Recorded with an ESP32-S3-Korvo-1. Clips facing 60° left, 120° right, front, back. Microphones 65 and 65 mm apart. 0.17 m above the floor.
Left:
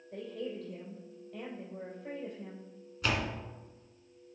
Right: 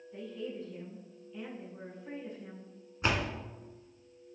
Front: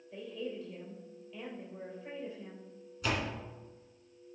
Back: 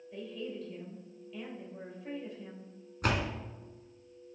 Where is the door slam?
175° right, 1.1 m.